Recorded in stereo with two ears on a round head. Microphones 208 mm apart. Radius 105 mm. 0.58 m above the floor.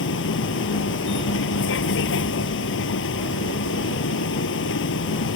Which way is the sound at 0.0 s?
55° left (ahead or behind).